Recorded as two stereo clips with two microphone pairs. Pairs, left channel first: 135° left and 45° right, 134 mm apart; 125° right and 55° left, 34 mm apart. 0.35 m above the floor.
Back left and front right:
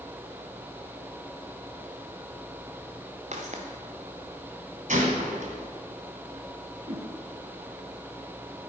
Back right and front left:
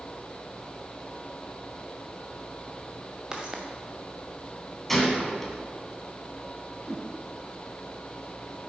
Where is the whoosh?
5° right, 1.5 m.